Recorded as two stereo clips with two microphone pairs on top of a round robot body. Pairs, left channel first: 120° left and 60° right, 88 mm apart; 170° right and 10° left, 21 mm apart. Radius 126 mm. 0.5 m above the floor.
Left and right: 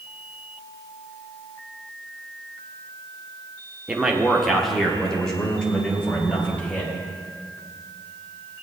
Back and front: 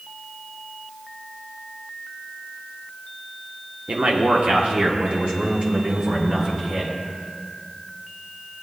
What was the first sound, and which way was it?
A man speaking, 20° left.